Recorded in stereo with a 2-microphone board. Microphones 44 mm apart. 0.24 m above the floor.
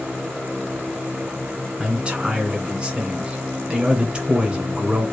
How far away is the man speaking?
About 1.9 m.